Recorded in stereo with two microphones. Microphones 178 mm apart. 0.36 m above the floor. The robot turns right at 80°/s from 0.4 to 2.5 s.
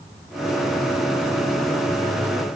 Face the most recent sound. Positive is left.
No sound to turn to.